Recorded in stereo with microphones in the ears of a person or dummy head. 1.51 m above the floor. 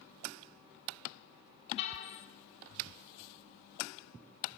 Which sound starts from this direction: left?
A car horn, at 1.8 s.